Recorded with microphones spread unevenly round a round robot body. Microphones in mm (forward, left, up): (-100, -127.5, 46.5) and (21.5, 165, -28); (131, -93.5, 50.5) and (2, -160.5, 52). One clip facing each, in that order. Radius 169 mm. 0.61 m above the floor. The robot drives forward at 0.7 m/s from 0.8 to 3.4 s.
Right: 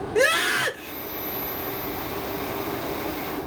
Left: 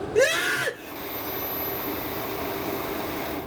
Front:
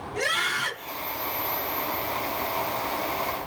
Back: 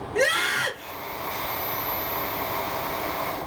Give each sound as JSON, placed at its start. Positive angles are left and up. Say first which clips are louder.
{"t": 0.1, "sound": "a scream", "louder": "left 1 dB, back 7 dB", "azimuth_deg": 170, "distance_m": 1.6}